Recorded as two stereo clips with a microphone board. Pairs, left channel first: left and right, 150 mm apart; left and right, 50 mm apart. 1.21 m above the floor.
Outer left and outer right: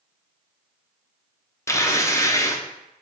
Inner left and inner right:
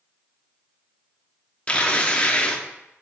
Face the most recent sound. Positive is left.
turn(degrees=20)  # may be behind; listen again after turning